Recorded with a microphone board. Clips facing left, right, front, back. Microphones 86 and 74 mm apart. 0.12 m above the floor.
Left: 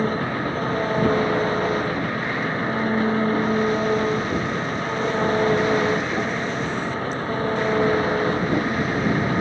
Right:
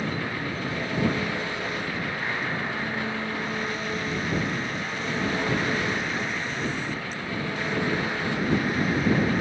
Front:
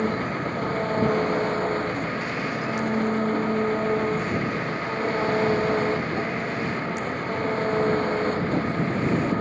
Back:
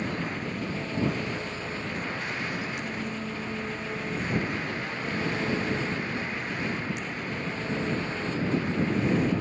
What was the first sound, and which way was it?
An engine running, 40° left.